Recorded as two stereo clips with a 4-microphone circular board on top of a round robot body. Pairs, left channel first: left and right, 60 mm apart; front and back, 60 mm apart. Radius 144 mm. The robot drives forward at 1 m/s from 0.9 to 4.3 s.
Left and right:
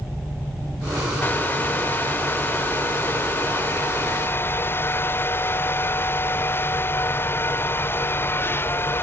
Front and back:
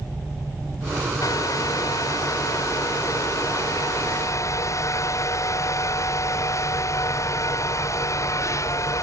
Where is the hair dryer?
30° left; by 9.0 s 40° left.